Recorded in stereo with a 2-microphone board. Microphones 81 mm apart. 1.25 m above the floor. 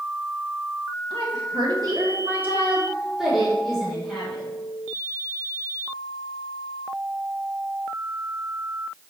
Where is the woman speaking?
80° right, 1.8 m; by 4.5 s 10° left (ahead or behind), 4.5 m.